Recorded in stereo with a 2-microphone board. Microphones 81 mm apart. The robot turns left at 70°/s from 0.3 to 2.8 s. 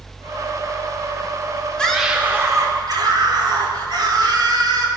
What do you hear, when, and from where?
1.8 s a scream: 15° left, 4 m; by 4.9 s 55° right, 4 m